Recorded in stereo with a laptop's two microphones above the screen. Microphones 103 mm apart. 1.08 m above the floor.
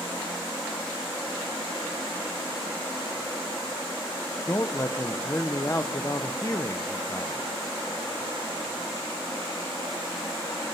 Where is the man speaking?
30° left (ahead or behind), 0.6 m.